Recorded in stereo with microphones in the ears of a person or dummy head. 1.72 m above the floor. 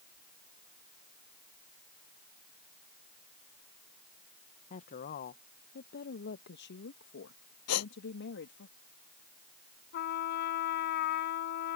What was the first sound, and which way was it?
A woman speaking, 40° left (ahead or behind).